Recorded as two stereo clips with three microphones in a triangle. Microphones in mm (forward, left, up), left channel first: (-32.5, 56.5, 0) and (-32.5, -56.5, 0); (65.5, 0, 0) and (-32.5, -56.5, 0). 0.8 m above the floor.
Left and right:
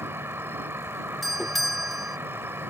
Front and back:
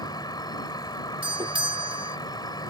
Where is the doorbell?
Straight behind.